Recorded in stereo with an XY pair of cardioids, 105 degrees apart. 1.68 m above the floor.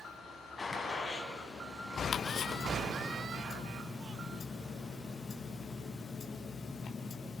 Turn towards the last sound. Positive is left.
turn(degrees=45)